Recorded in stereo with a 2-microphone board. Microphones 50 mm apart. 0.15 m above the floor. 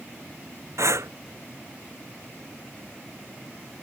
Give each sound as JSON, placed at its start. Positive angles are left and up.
{"t": 0.8, "sound": "breathing", "side_deg": -85}